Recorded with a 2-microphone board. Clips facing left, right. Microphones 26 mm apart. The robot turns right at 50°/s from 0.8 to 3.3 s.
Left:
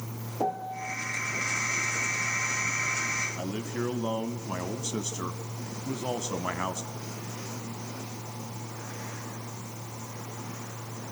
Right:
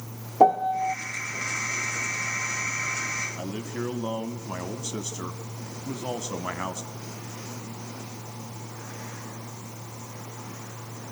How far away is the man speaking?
About 1.0 m.